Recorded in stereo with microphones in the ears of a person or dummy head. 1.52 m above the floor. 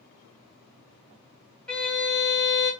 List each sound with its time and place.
1.7 s a violin: 10° left (ahead or behind), 1.1 m